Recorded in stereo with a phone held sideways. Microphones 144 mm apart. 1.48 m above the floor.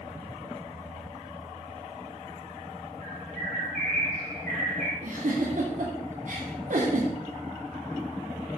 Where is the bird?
80° right, 6 m.